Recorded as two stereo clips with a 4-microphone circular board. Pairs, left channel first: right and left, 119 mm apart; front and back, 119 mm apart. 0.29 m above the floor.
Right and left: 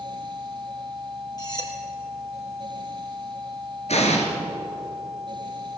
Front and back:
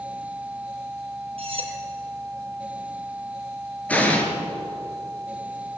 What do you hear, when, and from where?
1.4 s cutlery clinking: 145° right, 4 m
3.9 s an explosion: 75° right, 3 m